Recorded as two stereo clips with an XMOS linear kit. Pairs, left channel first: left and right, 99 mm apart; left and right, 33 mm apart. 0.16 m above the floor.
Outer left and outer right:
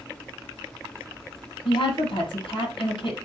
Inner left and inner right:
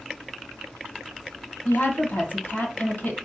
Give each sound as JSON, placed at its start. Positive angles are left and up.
{"t": 1.6, "sound": "a woman speaking", "side_deg": 60, "distance_m": 5.0}